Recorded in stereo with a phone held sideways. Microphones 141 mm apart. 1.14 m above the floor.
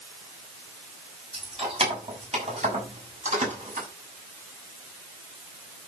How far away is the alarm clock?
I don't hear an alarm clock.